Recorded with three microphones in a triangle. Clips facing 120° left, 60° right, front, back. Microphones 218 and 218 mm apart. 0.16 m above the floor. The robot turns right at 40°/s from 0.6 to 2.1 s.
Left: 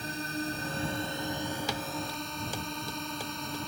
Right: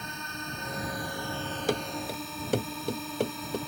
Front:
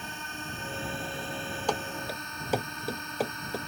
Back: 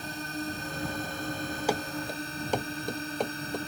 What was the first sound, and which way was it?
A drone, 155° left.